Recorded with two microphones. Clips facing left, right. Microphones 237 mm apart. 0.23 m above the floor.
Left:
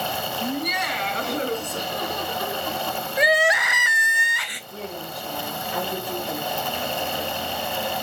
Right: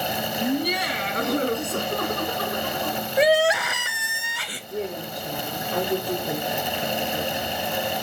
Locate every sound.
0.4 s laughter: 30° right (ahead or behind), 1.9 m; by 3.0 s 65° right (ahead or behind), 3.5 m
3.2 s crying: 35° right (ahead or behind), 0.6 m
4.7 s a woman speaking: 60° right (ahead or behind), 4 m